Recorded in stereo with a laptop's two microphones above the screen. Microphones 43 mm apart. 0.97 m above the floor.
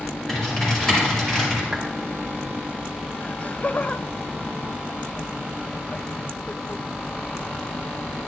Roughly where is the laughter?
Left.